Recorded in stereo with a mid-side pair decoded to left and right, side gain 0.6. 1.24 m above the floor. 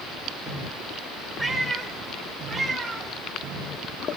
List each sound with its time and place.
1.4 s a cat meowing: straight ahead, 2 m; by 3.1 s 15° right, 3 m